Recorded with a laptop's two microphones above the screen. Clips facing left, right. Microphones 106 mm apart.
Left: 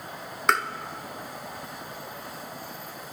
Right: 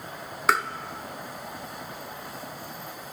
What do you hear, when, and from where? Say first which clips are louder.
0.5 s tapping: even; 5° right (ahead or behind), 0.6 m